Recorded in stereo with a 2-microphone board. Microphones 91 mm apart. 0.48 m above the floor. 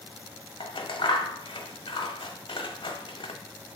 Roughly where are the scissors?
Left.